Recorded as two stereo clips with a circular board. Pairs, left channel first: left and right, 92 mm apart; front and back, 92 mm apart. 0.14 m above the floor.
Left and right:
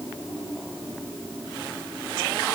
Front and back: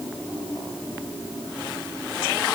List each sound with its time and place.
Only background noise.